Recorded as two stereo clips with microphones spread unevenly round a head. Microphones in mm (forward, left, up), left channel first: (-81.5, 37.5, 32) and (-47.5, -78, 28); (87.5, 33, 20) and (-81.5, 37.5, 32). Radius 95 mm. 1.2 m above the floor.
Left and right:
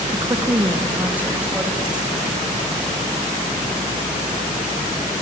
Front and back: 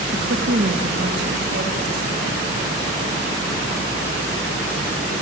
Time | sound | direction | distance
0.1 | a woman speaking | 130° right | 1.4 m